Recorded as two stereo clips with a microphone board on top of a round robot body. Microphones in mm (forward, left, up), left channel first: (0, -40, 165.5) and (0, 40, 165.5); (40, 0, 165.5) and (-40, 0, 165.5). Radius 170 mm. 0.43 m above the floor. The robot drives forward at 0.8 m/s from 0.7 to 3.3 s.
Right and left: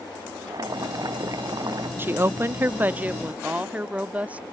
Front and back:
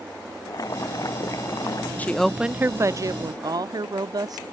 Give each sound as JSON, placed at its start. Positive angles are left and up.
{"t": 0.5, "sound": "boiling", "azimuth_deg": 45}
{"t": 2.0, "sound": "a woman speaking", "azimuth_deg": 50}